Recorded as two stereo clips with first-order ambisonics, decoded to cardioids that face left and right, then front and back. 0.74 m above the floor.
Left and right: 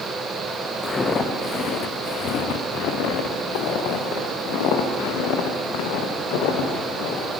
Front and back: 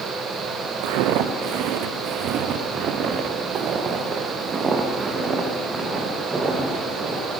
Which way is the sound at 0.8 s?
165° left.